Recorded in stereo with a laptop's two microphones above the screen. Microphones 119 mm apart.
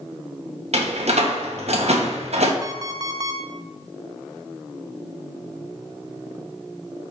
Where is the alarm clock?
30° right (ahead or behind), 0.5 m.